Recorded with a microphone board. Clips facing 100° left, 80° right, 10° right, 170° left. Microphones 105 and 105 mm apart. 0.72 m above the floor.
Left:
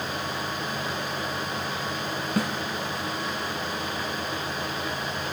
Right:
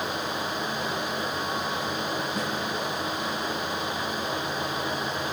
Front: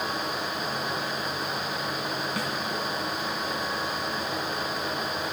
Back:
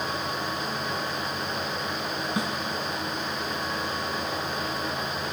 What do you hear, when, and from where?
2.4 s a snare drum: 105° left, 1.4 m